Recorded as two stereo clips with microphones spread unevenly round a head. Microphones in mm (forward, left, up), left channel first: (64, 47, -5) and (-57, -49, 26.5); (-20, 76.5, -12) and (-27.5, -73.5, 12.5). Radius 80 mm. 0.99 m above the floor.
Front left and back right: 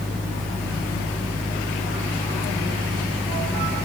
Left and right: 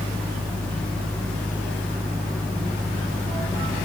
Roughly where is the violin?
No violin in this recording.